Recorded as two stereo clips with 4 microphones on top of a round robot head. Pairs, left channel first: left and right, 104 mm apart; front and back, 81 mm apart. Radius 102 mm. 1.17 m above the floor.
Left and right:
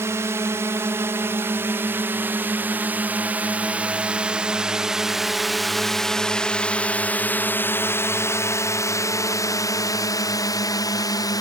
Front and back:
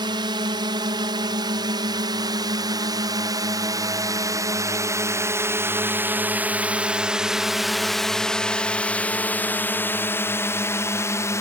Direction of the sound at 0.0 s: 155° right.